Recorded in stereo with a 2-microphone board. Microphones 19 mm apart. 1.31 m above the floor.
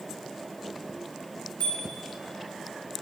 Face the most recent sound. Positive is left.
turn(degrees=75)  # may be behind; listen again after turning